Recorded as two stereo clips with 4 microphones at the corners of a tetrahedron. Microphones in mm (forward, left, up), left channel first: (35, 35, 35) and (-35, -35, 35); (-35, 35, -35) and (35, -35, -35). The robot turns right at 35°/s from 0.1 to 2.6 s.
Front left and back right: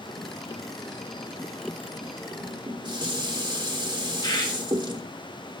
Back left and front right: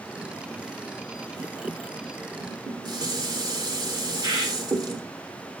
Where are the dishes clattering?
100° right, 1.2 m; by 5.0 s 90° right, 1.2 m.